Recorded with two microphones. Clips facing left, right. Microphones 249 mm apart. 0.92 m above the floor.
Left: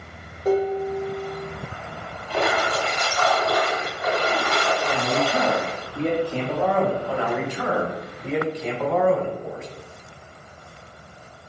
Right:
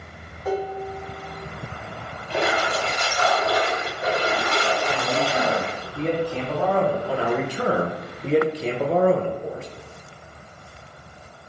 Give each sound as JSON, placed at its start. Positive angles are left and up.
{"t": 0.5, "sound": "dishes clattering", "side_deg": 35, "distance_m": 1.6}
{"t": 2.3, "sound": "a splash", "side_deg": -30, "distance_m": 1.3}
{"t": 4.9, "sound": "a man speaking", "side_deg": 35, "distance_m": 1.2}
{"t": 7.1, "sound": "a man speaking", "side_deg": -35, "distance_m": 0.6}